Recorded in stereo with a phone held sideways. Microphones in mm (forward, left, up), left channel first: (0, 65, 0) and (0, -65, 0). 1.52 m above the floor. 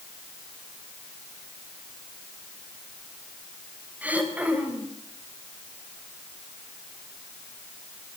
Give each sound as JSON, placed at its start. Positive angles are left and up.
{"t": 4.0, "sound": "throat clearing", "side_deg": -10, "distance_m": 4.0}